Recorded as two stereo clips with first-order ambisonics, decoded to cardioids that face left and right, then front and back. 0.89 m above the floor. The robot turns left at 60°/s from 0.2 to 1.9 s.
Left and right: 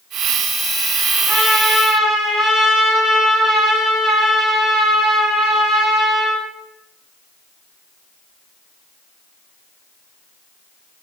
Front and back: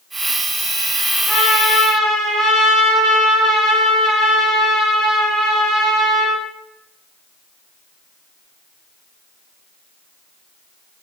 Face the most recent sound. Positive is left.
turn(degrees=-25)